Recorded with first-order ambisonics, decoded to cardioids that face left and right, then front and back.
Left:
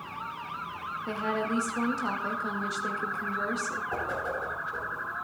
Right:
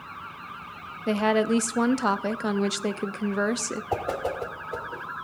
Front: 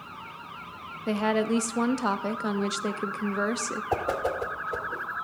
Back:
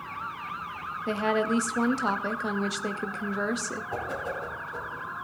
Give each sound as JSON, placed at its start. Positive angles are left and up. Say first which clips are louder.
{"t": 1.1, "sound": "a woman speaking", "louder": "right 8 dB, even", "azimuth_deg": -80, "distance_m": 0.5}
{"t": 3.9, "sound": "a whoosh", "louder": "right 3 dB, front 7 dB", "azimuth_deg": -40, "distance_m": 1.4}